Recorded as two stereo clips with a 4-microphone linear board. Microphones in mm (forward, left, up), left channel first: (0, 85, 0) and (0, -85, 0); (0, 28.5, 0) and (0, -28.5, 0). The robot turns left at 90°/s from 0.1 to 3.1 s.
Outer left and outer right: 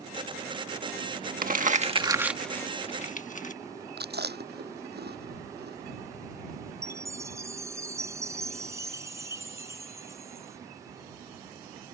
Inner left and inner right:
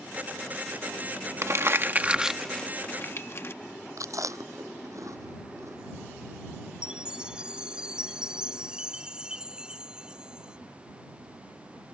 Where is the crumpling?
55° right (ahead or behind); by 3.5 s 50° left (ahead or behind).